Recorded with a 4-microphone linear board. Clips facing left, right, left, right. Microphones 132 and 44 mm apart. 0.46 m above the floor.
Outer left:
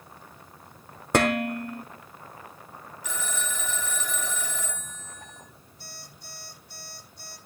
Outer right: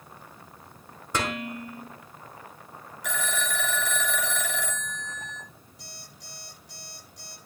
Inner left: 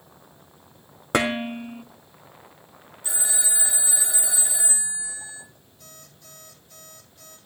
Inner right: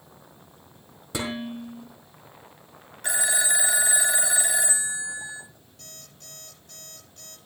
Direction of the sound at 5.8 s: 85° right.